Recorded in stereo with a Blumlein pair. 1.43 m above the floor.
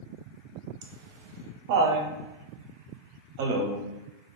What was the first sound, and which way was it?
Laughter, 50° right.